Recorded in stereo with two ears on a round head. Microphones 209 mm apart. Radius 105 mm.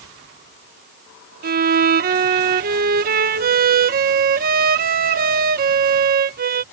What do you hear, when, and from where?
1.4 s a violin: 40° right (ahead or behind)